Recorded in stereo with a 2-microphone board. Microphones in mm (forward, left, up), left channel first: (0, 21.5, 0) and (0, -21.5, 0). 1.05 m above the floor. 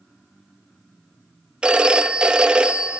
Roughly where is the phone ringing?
Right.